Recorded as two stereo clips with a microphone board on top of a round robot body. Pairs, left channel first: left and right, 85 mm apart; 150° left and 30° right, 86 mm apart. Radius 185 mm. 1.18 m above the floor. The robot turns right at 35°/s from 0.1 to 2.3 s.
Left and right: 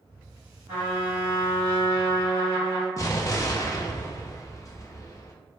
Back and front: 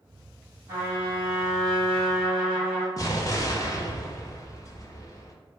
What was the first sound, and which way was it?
A trumpet, 85° right.